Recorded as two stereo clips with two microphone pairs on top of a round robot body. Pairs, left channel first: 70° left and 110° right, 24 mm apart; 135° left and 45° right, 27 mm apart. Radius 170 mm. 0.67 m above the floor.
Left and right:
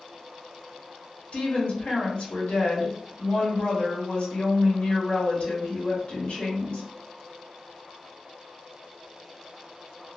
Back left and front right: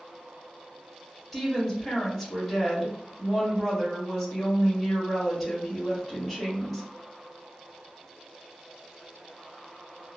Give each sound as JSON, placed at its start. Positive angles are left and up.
{"t": 1.3, "sound": "a woman speaking", "azimuth_deg": 60, "distance_m": 1.5}